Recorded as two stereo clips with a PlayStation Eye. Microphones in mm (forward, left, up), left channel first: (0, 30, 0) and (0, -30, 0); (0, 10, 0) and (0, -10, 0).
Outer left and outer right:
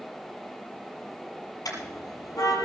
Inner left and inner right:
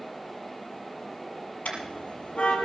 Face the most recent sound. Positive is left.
turn(degrees=75)  # may be behind; listen again after turning